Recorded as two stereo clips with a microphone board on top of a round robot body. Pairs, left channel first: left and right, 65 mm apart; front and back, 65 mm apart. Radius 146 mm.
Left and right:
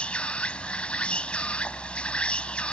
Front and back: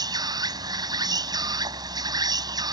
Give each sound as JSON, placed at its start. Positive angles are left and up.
{"t": 0.0, "sound": "an insect", "azimuth_deg": 165}